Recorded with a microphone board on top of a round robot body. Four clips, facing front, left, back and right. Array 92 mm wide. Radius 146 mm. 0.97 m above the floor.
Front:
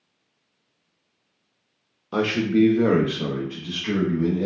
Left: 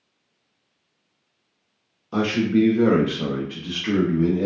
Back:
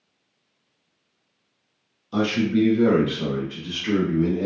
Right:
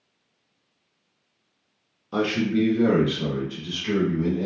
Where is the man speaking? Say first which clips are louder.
Left 3 dB, front 1 dB; 10° left, 1.0 m; by 4.5 s 120° left, 1.2 m.